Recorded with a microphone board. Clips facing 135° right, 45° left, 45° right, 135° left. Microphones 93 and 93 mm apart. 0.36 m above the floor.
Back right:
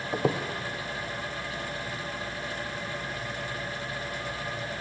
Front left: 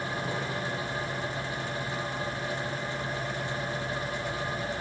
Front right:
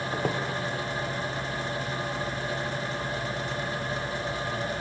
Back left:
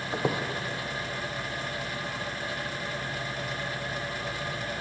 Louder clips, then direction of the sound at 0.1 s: Back right 10 dB, back left 2 dB; 145° right.